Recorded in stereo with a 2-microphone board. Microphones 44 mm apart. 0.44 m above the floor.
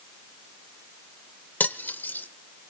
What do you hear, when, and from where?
1.6 s cutlery clinking: 45° left (ahead or behind), 0.7 m